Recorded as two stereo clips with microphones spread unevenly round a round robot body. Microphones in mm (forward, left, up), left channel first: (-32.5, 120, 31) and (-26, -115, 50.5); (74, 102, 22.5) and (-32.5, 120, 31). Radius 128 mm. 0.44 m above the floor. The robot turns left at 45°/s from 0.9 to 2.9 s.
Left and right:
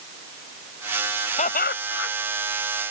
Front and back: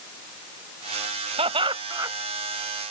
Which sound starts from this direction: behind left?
Laughter, at 1.4 s.